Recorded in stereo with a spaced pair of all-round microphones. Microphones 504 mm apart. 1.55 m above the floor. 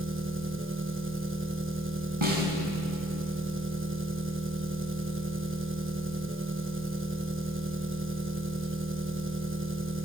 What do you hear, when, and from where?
0.0 s an engine running: 25° right (ahead or behind), 1.2 m
2.2 s a snare drum: 70° right (ahead or behind), 5.5 m